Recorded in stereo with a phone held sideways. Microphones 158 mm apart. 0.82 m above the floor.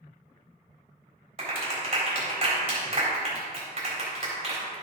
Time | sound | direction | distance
1.4 | a clap | 45° right (ahead or behind) | 3.5 m